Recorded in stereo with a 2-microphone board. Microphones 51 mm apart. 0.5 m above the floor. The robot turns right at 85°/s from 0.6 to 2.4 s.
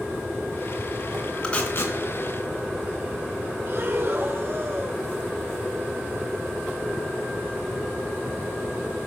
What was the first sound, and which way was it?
Tape being pulled, 15° left (ahead or behind).